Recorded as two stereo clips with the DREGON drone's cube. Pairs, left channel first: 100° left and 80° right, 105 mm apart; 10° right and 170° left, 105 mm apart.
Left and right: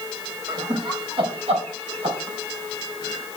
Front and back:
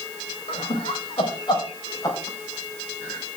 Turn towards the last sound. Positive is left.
turn(degrees=-80)